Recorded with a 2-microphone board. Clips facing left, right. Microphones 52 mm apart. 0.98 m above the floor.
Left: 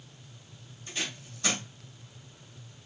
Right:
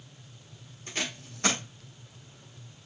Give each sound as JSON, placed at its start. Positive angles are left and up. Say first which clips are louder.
{"t": 0.9, "sound": "tape being pulled", "louder": "right 2 dB", "side_deg": -55, "distance_m": 1.6}